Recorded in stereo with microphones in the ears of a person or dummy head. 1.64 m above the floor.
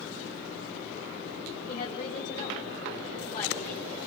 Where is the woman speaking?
35° left (ahead or behind), 6 m.